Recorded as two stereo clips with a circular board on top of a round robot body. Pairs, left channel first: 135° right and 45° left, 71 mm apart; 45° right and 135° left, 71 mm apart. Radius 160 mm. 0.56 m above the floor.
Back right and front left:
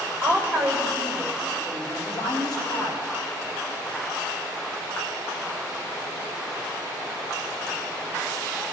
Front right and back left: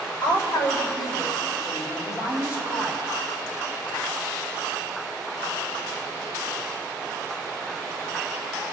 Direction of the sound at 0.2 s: 25° right.